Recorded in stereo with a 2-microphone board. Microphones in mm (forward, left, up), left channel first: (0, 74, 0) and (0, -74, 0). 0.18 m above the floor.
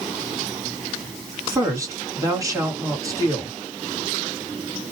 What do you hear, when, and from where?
1.5 s a woman speaking: 20° right (ahead or behind), 2 m